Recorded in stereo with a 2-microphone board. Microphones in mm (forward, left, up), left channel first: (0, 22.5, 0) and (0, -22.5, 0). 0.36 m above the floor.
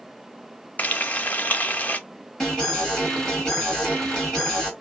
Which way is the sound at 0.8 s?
35° left (ahead or behind).